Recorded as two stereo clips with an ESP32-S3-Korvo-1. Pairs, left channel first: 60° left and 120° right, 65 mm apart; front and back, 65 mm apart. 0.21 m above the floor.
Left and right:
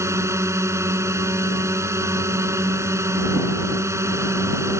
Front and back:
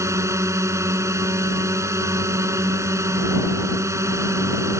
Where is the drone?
150° right.